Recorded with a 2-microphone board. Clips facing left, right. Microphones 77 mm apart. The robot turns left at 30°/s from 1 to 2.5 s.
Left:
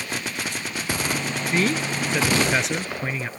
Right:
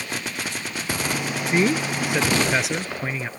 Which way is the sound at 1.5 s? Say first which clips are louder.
Right 3 dB; 145° right.